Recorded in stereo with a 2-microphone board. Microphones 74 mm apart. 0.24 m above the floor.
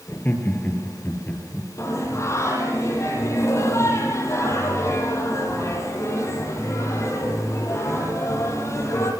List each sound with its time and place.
0.1 s laughter: 25° left (ahead or behind), 6 m; by 1.7 s 20° left (ahead or behind), 6.5 m
1.8 s singing: 35° left (ahead or behind), 9 m